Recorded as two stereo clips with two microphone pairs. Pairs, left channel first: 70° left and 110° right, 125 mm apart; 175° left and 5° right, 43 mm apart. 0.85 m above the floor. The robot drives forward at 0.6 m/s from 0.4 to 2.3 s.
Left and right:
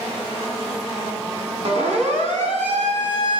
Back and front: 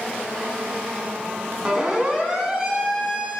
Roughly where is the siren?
Right.